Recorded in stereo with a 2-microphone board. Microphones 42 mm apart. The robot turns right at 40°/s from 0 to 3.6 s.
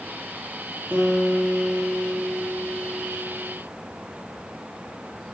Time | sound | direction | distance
0.9 | a guitar | 140° right | 3.5 m